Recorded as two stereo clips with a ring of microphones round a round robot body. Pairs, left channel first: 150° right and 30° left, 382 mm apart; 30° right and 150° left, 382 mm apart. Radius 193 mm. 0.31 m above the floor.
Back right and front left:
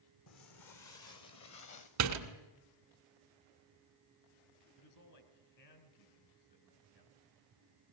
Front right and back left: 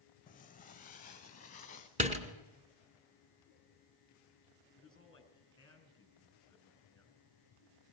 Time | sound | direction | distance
0.3 | footsteps | 100° right | 1.4 m
2.0 | a door slam | 75° left | 2 m
4.8 | a man speaking | 110° right | 4.5 m